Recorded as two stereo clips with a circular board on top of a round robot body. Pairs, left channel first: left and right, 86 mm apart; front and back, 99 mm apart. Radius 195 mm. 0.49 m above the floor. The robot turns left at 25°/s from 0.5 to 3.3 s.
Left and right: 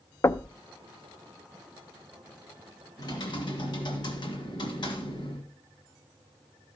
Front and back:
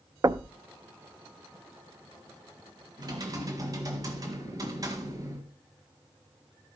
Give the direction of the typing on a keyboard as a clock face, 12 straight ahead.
8 o'clock.